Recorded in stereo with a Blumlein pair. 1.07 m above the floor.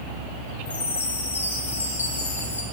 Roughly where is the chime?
Left.